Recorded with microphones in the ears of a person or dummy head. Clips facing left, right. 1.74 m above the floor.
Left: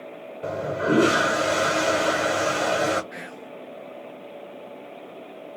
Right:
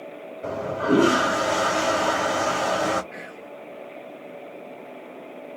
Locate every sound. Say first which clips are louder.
0.4 s a toilet flushing: even; 35° left (ahead or behind), 1.6 m
3.1 s whispering: even; 60° left (ahead or behind), 1.1 m